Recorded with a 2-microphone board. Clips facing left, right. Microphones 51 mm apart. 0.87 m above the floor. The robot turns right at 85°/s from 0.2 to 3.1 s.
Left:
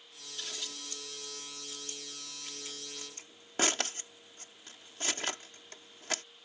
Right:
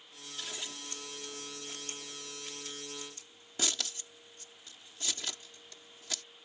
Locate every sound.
0.4 s scissors: centre (ahead or behind); by 6.2 s 50° left (ahead or behind)